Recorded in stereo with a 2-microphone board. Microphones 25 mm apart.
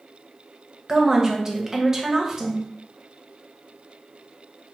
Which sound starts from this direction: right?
A woman speaking, at 0.9 s.